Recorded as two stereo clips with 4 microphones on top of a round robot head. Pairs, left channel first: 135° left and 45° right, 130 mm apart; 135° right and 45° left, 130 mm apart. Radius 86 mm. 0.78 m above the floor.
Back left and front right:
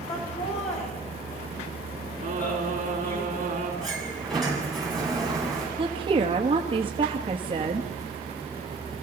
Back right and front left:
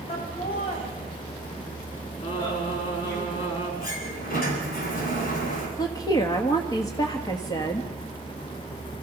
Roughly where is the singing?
Right.